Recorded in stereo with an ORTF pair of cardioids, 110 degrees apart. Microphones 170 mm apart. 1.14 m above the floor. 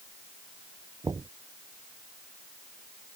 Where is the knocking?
20° right.